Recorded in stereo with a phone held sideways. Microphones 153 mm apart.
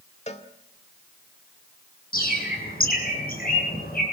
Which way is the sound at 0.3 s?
45° left (ahead or behind).